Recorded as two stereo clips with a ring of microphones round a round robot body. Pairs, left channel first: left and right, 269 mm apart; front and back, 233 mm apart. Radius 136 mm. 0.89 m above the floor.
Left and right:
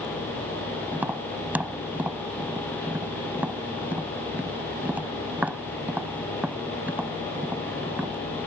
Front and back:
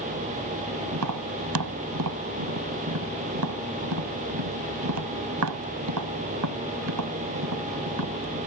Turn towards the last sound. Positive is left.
turn(degrees=-175)